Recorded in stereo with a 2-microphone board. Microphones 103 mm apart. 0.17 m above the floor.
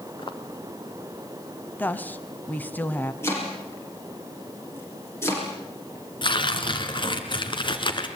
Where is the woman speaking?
15° left (ahead or behind), 1.3 m.